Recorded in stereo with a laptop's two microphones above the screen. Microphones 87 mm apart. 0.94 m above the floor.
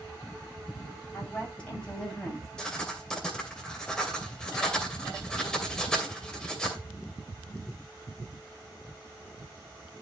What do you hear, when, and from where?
1.1 s a woman speaking: 20° left (ahead or behind), 6.5 m; by 2.5 s 5° left (ahead or behind), 6 m
2.6 s writing: 10° left (ahead or behind), 2.5 m